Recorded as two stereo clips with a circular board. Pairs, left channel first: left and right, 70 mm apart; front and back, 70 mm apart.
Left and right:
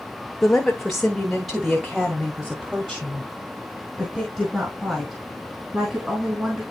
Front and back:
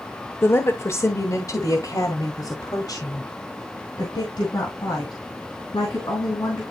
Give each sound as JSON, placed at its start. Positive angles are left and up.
{"t": 0.4, "sound": "a woman speaking", "azimuth_deg": 15, "distance_m": 1.2}